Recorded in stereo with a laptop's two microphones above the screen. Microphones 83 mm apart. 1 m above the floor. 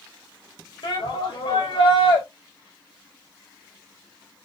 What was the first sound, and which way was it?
A shout, 75° left (ahead or behind).